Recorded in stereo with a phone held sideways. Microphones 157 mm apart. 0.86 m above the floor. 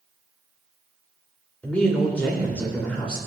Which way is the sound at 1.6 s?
10° left (ahead or behind).